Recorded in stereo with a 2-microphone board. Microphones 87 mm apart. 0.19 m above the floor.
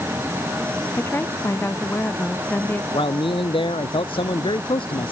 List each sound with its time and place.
1.0 s a woman speaking: 30° left (ahead or behind); by 2.8 s 25° left (ahead or behind)
2.9 s a man speaking: 80° left